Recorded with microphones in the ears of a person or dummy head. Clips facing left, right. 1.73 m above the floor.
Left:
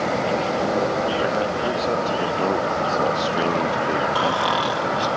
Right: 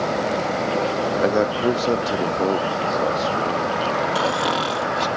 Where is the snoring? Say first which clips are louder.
Even; 25° right (ahead or behind).